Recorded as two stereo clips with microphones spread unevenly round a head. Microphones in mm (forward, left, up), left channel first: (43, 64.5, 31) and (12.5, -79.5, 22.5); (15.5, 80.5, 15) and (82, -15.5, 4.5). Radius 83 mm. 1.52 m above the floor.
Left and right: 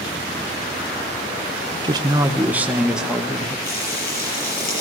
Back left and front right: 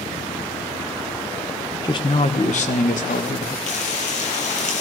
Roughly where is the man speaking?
Behind.